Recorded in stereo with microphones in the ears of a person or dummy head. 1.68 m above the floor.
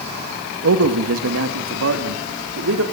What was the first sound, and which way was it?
A man speaking, 75° right (ahead or behind).